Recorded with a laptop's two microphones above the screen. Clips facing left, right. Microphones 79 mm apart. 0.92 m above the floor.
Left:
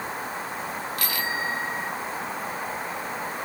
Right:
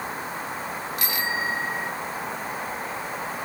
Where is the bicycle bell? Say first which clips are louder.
Right 2 dB; 20° right (ahead or behind).